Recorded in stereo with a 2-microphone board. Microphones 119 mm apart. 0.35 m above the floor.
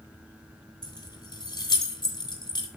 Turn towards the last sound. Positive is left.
turn(degrees=40)  # may be behind; listen again after turning